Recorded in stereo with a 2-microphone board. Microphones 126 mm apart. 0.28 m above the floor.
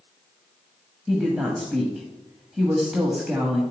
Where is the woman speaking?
5° right (ahead or behind), 1.4 m.